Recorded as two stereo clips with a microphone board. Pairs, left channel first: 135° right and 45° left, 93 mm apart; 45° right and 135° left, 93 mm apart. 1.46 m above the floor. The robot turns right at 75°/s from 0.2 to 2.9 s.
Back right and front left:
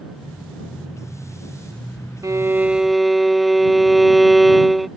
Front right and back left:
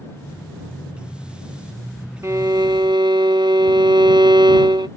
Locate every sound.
2.2 s a violin: 85° left; by 4.9 s 135° left